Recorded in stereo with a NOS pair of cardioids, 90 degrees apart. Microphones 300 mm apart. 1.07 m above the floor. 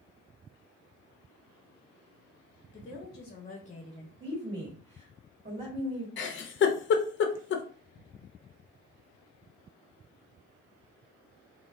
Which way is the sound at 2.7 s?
50° left.